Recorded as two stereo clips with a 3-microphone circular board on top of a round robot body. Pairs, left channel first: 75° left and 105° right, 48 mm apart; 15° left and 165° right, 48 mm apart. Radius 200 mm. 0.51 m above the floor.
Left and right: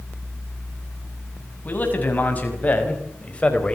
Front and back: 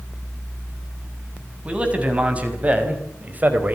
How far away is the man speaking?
About 6.5 m.